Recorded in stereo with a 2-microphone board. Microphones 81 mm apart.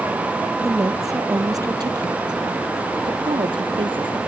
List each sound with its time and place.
0.6 s a woman speaking: 40° right (ahead or behind); by 4.2 s 70° right (ahead or behind)